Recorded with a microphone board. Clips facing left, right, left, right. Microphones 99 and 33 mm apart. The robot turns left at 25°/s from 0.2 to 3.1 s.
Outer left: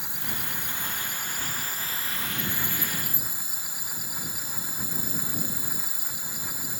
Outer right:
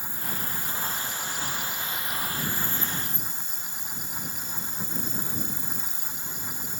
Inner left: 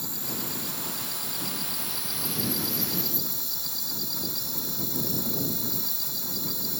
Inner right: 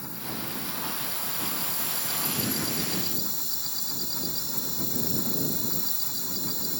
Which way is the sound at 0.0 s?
80° left.